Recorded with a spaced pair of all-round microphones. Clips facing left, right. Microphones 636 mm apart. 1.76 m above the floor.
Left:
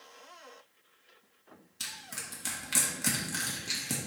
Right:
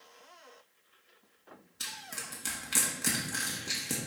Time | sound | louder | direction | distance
1.8 | crushing | right 1 dB | 15° left (ahead or behind) | 1.3 m